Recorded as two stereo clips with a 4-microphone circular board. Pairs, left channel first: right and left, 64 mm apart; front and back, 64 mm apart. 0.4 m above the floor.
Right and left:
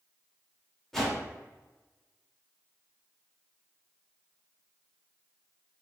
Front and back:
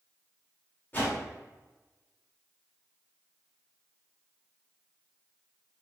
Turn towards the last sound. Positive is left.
turn(degrees=-5)